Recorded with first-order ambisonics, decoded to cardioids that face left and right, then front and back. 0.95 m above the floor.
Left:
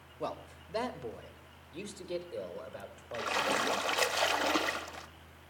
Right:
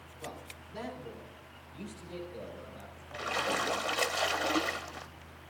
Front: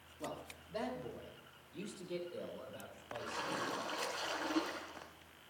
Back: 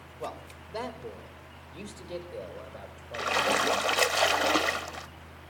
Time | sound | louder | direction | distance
0.2 | a man speaking | left 6 dB, back 7 dB | 115° left | 1.5 m
3.1 | a splash | left 1 dB, back 15 dB | 170° left | 0.5 m